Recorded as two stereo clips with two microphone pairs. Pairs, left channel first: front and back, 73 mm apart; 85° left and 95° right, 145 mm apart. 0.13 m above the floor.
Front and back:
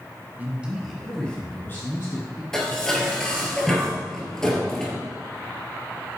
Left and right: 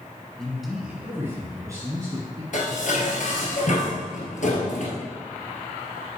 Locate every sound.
0.4 s a man speaking: 165° left, 1.6 m; by 2.4 s 40° right, 2.5 m
2.5 s dishes clattering: 85° left, 1.8 m